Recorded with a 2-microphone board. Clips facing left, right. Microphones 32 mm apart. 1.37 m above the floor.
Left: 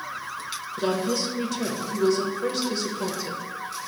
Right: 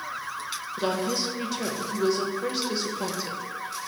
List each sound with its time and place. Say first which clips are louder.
0.8 s a woman speaking: left 2 dB; 10° right (ahead or behind), 1.0 m